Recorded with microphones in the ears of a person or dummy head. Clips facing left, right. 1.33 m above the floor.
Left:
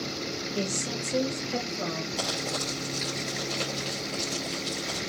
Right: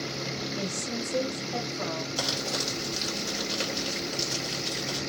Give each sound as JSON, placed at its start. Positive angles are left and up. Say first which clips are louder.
{"t": 0.6, "sound": "a woman speaking", "louder": "left 4 dB", "side_deg": 60, "distance_m": 1.9}
{"t": 2.2, "sound": "crumpling", "louder": "even", "side_deg": -10, "distance_m": 2.0}